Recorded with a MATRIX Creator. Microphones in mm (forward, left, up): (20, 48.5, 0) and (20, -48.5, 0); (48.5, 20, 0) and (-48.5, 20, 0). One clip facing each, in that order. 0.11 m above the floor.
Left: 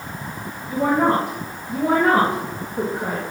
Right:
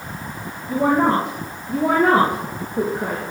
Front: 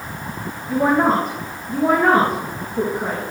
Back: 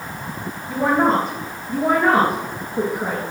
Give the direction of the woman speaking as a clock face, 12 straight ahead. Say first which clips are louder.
Right 1 dB, front 1 dB; 3 o'clock.